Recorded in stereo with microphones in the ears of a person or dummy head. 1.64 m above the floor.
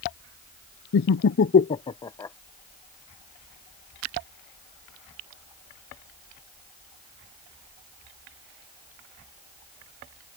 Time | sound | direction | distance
0.9 | laughter | 60° left (ahead or behind) | ?